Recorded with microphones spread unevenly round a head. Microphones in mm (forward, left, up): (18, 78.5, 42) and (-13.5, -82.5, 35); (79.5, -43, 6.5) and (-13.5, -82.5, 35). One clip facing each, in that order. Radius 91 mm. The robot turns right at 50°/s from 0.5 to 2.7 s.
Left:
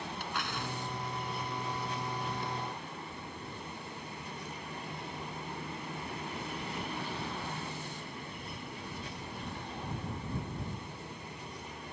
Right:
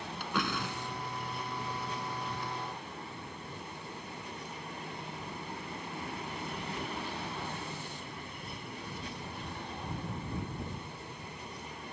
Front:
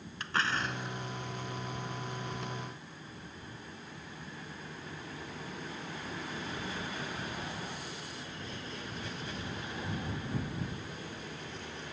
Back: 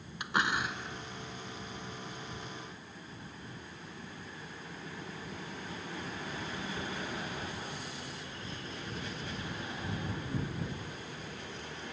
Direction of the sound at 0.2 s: 85° right.